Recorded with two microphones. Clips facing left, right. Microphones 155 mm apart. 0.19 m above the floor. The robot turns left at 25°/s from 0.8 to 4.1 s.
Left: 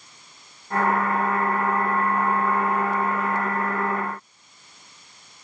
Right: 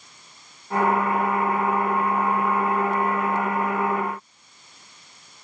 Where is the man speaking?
No man speaking in this recording.